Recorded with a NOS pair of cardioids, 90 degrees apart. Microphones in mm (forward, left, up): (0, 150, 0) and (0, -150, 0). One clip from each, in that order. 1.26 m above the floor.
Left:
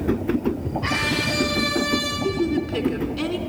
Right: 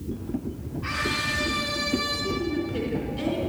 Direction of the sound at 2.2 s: 60° left.